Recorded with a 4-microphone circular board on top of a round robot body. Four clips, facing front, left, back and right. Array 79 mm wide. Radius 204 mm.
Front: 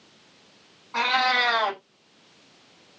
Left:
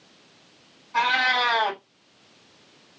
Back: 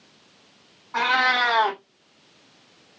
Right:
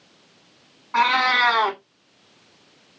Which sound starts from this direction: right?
A cat meowing, at 0.9 s.